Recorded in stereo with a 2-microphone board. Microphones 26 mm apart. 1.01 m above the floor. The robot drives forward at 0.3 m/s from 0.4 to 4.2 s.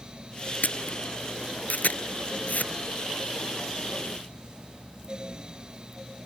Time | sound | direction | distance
0.6 | a camera shutter | 80° left | ?